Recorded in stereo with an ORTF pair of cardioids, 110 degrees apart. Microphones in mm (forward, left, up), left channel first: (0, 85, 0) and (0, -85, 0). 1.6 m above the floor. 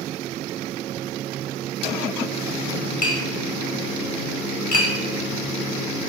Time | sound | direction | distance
3.0 | tapping | 50° left | 0.9 m